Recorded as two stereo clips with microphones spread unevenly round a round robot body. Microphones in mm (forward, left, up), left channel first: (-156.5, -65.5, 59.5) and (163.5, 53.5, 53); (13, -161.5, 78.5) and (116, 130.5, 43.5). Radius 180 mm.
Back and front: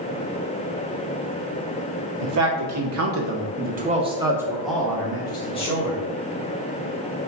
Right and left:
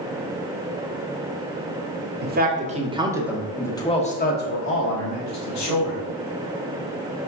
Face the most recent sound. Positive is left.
turn(degrees=-90)